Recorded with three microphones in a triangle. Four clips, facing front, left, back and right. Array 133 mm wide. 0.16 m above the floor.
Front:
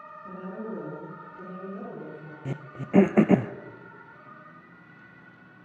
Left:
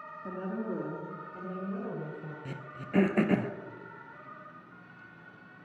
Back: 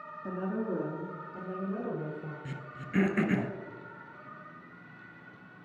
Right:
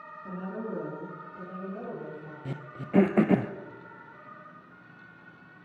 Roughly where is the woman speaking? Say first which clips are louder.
Left 1 dB, back 4 dB; behind left.